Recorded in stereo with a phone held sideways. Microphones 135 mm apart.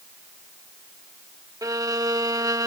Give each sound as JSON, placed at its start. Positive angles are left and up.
{"t": 1.6, "sound": "a violin", "side_deg": -25}